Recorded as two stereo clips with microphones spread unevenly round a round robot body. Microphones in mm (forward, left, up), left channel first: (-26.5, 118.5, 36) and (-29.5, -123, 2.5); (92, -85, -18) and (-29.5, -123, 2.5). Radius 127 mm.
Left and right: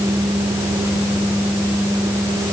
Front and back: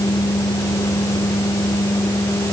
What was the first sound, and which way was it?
Only background noise.